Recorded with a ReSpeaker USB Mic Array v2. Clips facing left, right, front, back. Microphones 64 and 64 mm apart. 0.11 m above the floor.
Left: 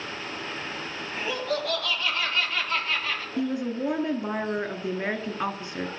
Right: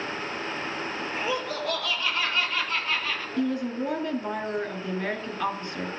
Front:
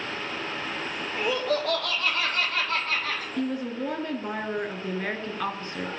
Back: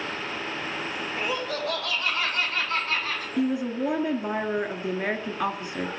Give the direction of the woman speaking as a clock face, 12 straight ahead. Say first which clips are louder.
Right 1 dB, back 5 dB; 8 o'clock.